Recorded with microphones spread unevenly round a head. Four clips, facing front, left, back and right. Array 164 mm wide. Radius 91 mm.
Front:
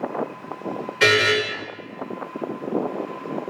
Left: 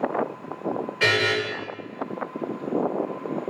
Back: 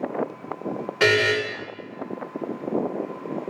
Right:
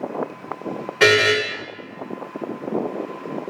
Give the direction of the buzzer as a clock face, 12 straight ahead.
4 o'clock.